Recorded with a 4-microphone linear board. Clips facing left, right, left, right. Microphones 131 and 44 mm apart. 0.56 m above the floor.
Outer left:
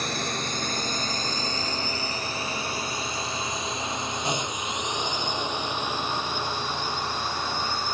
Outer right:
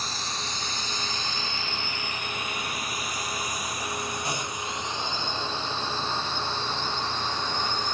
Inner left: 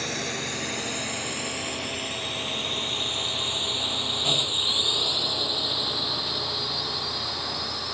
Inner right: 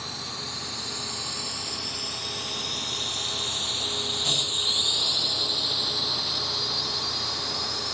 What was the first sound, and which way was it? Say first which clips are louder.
A drone: outer left 5 dB, inner left 6 dB; 60° left (ahead or behind).